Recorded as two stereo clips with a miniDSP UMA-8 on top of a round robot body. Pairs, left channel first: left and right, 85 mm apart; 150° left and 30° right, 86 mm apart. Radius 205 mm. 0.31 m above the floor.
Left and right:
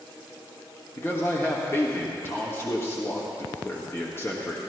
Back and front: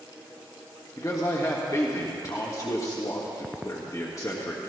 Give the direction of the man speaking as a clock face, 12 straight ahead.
7 o'clock.